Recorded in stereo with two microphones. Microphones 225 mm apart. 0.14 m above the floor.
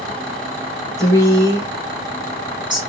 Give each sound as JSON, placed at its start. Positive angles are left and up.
{"t": 1.0, "sound": "a woman speaking", "side_deg": -15, "distance_m": 1.8}